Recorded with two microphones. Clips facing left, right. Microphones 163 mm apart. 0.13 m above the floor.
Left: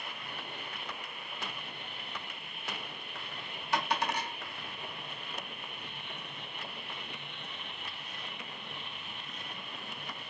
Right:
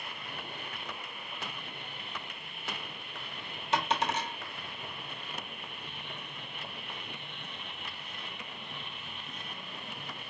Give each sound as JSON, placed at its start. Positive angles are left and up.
{"t": 3.7, "sound": "a dropped coin", "side_deg": -25, "distance_m": 0.8}